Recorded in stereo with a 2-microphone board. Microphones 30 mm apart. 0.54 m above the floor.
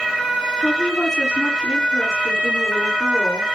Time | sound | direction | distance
0.6 | a woman speaking | 25° left (ahead or behind) | 4.5 m